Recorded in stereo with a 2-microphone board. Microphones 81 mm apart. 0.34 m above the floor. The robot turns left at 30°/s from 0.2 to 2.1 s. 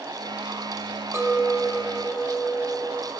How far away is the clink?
About 1.2 m.